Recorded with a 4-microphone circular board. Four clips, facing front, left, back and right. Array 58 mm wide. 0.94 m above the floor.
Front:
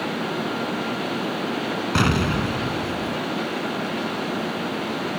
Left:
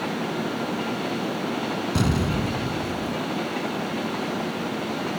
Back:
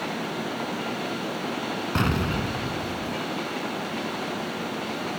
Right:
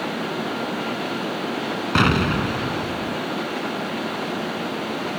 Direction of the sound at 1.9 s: 75° right.